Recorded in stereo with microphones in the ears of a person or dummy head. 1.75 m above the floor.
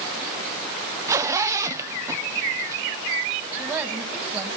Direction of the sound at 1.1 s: 20° right (ahead or behind).